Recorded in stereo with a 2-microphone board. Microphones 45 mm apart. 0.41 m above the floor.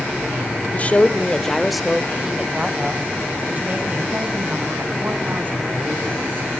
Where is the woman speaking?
35° left (ahead or behind), 1.3 m; by 6.5 s 45° right (ahead or behind), 5 m.